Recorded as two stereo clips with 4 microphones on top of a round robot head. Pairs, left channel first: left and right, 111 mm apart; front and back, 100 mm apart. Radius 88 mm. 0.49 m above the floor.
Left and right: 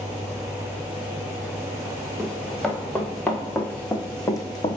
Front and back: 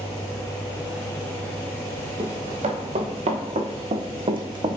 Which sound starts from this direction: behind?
Running footsteps, at 2.2 s.